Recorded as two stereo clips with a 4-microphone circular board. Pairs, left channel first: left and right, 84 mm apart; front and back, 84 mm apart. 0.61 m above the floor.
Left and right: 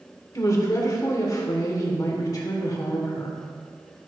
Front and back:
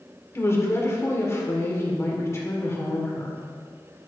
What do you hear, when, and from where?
0.3 s a woman speaking: 50° left, 1.9 m